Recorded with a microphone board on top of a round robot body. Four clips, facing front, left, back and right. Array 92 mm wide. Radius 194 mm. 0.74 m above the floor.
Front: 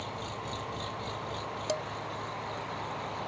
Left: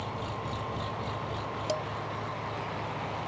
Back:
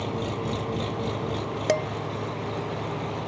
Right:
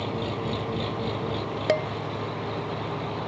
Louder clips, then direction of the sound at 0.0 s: Right 6 dB, back 9 dB; 135° right.